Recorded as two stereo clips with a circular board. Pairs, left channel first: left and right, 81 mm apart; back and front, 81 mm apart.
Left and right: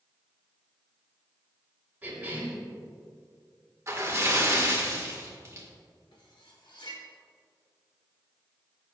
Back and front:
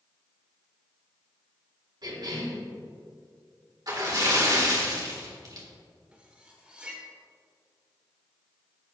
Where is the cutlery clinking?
75° left, 1.3 m.